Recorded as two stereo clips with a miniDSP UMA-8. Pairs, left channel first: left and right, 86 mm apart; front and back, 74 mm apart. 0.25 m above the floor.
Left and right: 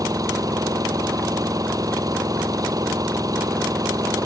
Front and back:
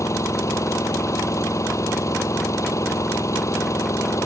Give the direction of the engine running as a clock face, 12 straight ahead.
2 o'clock.